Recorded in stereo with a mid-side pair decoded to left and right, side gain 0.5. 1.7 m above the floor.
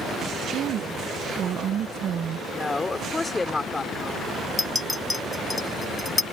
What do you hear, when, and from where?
0.5 s a woman speaking: 60° right
2.5 s a woman speaking: 20° left
4.6 s a clink: 15° left